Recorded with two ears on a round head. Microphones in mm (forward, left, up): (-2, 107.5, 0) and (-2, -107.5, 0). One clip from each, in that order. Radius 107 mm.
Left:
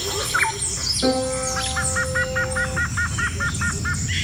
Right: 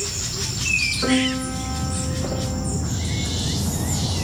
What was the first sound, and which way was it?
A piano, 35° right (ahead or behind).